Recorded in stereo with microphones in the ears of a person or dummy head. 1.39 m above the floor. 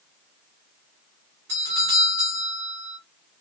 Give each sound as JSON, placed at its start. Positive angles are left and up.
{"t": 1.5, "sound": "a doorbell", "side_deg": -60, "distance_m": 1.6}